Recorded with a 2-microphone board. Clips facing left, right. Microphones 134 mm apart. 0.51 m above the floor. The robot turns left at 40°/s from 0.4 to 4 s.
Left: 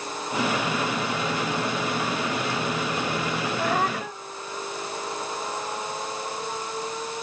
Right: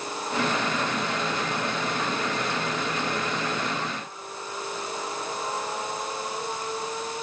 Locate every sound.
3.6 s a cat meowing: 85° left; by 4.2 s 75° left (ahead or behind)